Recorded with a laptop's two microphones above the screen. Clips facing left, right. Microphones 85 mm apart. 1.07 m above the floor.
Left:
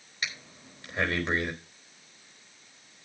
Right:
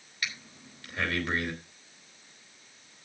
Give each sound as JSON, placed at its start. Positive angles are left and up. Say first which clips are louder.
{"t": 0.2, "sound": "breathing", "louder": "left 1 dB", "side_deg": 20, "distance_m": 3.0}